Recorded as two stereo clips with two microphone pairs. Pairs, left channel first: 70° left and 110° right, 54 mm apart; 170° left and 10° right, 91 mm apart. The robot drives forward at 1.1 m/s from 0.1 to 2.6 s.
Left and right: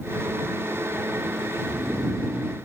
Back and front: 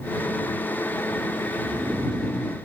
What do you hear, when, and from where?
1.6 s snoring: 45° right, 0.7 m; by 2.5 s 135° right, 0.7 m